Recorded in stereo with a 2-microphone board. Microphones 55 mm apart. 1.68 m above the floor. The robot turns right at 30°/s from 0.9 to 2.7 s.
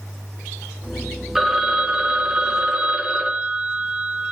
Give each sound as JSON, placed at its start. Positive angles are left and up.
{"t": 1.4, "sound": "a phone ringing", "side_deg": -5, "distance_m": 0.8}